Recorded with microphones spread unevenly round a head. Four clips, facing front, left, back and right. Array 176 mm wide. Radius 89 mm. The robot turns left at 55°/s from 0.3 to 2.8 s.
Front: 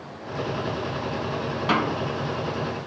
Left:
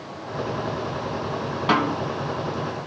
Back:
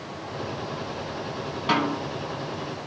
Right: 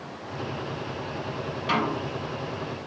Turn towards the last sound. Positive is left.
turn(degrees=30)